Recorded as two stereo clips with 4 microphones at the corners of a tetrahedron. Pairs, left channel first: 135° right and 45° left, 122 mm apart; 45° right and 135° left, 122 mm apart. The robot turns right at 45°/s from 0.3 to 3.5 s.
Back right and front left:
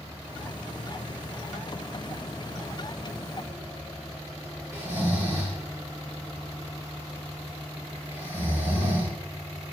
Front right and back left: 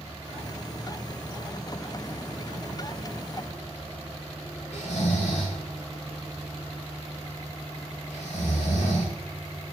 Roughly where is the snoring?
Ahead right.